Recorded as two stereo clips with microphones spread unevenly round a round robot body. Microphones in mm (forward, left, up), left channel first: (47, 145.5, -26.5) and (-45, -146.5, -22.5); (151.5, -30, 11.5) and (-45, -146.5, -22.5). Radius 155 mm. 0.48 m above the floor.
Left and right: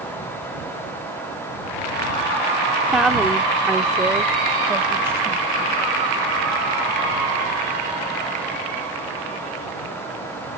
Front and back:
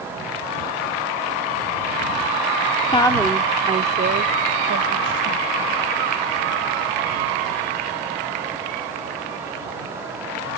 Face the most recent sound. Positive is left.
turn(degrees=170)